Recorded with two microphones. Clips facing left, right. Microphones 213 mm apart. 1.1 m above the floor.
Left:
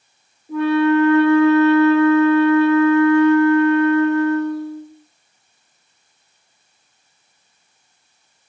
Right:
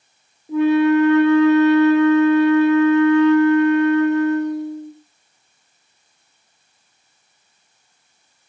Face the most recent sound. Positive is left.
turn(degrees=-20)  # may be behind; listen again after turning